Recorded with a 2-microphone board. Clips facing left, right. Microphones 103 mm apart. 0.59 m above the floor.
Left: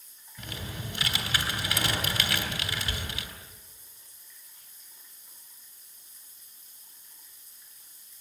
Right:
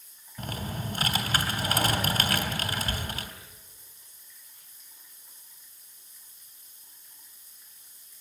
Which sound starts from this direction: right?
Typing on a keyboard, at 0.4 s.